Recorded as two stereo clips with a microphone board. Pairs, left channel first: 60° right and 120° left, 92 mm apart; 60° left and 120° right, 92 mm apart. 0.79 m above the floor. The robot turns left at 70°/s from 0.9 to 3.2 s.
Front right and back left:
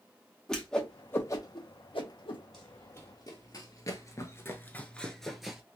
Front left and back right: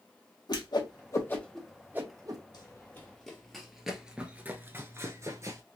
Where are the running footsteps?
25° left, 1.6 m; by 5.6 s 155° right, 1.0 m.